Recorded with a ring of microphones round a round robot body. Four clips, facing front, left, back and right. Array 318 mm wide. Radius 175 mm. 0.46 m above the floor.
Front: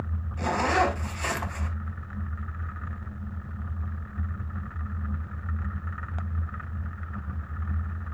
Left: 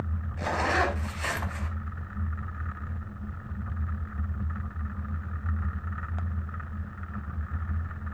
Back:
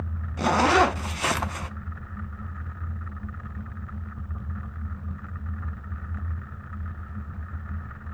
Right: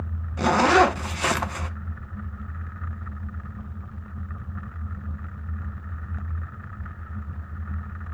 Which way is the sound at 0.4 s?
125° right.